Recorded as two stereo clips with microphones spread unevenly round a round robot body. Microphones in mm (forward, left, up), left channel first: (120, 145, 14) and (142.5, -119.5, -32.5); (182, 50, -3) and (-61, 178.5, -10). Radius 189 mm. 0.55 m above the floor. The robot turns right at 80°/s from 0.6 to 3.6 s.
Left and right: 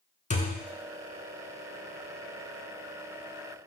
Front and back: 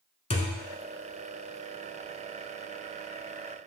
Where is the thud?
40° left, 0.8 m; by 0.7 s 45° left, 0.8 m.